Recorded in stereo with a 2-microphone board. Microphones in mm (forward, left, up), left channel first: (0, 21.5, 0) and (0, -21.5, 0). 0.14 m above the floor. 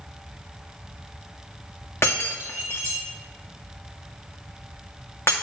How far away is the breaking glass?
About 1.8 m.